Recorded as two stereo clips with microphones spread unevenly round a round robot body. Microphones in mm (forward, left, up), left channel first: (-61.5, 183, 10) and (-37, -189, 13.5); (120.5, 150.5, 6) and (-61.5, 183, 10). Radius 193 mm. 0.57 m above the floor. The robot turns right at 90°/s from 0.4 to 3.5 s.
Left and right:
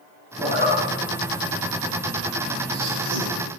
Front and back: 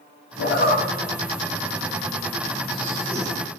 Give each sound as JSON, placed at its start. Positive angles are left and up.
{"t": 0.4, "sound": "a zipper", "azimuth_deg": 5, "distance_m": 1.8}